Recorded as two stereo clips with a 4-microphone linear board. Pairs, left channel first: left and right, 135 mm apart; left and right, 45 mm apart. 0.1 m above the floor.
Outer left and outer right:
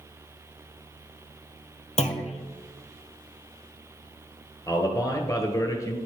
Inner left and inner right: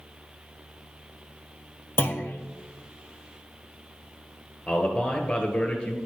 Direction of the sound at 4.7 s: 25° left (ahead or behind).